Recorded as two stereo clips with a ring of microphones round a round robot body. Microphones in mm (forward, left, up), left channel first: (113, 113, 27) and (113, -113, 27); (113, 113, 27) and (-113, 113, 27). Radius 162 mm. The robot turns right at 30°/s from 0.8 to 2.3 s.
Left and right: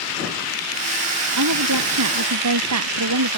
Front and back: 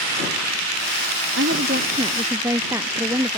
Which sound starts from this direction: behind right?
A woman speaking, at 1.4 s.